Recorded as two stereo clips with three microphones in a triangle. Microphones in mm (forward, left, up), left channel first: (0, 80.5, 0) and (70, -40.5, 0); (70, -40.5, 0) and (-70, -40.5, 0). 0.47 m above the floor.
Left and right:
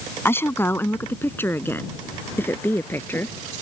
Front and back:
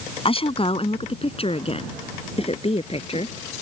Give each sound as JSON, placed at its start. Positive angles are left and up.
{"t": 0.2, "sound": "a woman speaking", "azimuth_deg": 45}